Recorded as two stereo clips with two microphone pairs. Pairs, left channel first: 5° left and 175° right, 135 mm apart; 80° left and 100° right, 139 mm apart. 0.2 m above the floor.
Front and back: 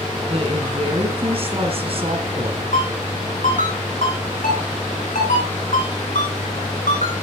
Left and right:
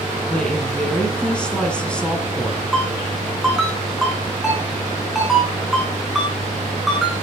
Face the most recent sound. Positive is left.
turn(degrees=-10)